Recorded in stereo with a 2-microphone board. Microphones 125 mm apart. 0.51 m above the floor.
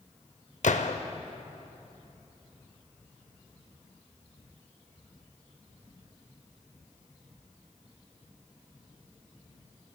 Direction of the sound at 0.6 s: 75° left (ahead or behind).